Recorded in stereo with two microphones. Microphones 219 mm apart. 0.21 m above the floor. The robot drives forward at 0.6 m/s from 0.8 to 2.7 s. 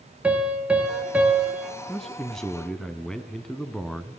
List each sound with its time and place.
0.2 s a piano: 5° right (ahead or behind), 4 m
1.9 s a man speaking: centre (ahead or behind), 2 m